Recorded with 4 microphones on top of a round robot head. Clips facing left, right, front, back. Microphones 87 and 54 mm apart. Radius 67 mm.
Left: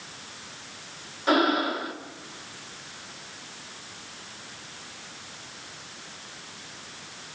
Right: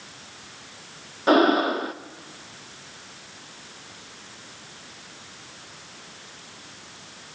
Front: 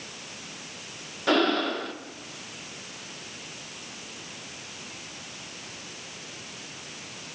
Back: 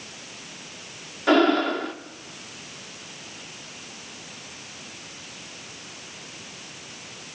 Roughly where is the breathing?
Right.